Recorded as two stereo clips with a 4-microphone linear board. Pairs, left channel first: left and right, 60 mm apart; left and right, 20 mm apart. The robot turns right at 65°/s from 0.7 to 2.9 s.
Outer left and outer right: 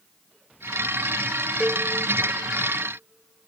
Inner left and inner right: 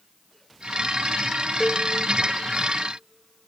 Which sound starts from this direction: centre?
A cowbell, at 1.6 s.